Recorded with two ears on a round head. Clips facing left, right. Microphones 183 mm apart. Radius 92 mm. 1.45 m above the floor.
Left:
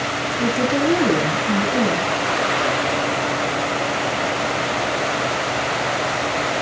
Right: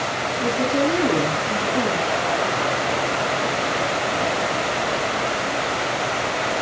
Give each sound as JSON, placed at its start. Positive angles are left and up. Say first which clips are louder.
{"t": 0.4, "sound": "a woman speaking", "louder": "left 1 dB", "side_deg": 70, "distance_m": 9.5}